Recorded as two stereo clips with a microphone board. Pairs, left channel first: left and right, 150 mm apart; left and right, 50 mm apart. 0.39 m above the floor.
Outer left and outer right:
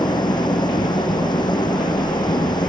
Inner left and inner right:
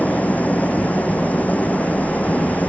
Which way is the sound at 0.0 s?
30° left (ahead or behind).